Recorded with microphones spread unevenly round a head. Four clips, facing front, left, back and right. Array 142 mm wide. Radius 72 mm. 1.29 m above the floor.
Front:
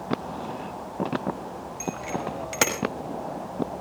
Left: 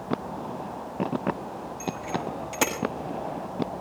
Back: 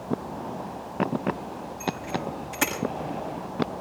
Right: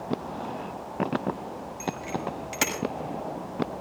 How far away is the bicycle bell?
About 5.5 m.